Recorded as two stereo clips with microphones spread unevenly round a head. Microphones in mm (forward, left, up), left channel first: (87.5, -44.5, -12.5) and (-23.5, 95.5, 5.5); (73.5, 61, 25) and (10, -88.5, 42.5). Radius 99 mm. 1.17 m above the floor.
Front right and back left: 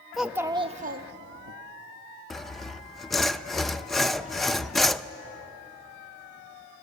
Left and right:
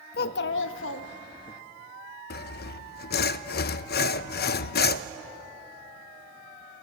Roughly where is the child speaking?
Ahead left.